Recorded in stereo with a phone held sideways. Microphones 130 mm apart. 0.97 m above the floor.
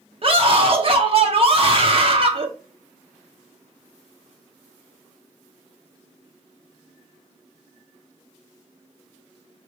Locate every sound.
0.2 s a scream: 45° right (ahead or behind), 1.5 m